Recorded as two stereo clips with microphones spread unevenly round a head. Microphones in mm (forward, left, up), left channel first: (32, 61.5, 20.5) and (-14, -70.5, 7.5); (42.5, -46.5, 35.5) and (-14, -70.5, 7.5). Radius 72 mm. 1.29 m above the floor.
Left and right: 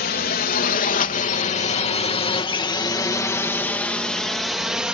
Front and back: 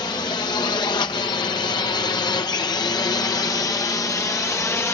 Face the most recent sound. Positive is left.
turn(degrees=-25)